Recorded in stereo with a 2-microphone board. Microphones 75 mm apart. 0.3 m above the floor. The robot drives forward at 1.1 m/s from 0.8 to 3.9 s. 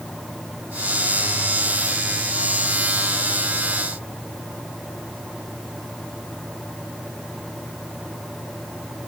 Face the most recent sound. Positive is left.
No sound to turn to.